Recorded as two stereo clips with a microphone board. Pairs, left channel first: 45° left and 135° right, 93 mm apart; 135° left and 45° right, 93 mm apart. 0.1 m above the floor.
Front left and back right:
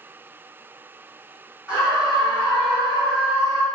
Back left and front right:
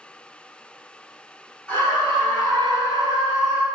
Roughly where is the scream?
Behind.